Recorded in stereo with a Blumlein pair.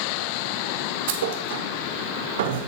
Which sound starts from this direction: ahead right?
A thud, at 1.1 s.